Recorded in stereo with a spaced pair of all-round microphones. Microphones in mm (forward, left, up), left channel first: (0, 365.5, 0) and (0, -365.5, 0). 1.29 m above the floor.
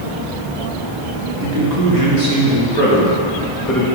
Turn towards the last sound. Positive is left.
turn(degrees=5)  # may be behind; listen again after turning